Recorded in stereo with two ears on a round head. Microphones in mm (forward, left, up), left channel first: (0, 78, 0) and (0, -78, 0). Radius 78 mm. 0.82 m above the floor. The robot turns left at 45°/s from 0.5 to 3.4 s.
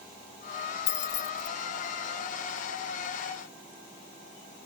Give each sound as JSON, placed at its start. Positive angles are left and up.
{"t": 0.9, "sound": "keys jangling", "side_deg": 65}